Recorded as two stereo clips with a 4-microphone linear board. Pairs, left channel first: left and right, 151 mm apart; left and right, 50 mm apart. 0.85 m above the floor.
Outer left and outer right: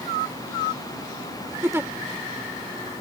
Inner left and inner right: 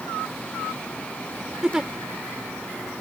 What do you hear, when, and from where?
1.6 s a giggle: 15° right (ahead or behind)